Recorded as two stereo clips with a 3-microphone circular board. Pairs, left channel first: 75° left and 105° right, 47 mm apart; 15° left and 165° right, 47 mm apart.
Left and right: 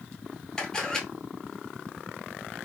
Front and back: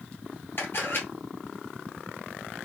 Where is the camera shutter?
Straight ahead, 1.9 m.